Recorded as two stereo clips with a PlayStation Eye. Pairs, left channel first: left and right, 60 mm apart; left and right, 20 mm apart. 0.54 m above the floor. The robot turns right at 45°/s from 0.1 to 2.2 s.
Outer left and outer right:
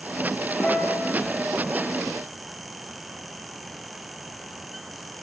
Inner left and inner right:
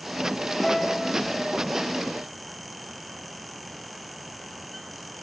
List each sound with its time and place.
0.6 s a guitar: 40° left (ahead or behind), 7.5 m; by 1.1 s 60° left (ahead or behind), 7.5 m